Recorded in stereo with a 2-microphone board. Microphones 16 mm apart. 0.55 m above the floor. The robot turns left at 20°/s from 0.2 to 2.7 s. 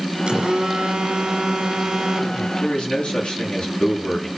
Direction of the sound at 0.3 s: 85° right.